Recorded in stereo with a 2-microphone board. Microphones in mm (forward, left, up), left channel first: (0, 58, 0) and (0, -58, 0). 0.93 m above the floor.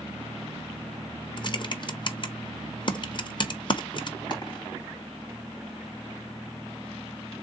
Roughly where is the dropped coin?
Left.